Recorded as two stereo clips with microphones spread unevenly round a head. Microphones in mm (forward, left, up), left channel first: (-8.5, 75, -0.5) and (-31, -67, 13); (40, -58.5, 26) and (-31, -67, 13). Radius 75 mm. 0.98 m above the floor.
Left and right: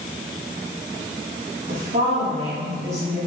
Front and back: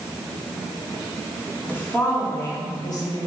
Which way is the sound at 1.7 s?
65° right.